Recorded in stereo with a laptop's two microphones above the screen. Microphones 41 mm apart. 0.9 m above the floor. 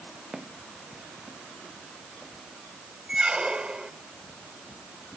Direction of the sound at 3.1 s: 25° right (ahead or behind).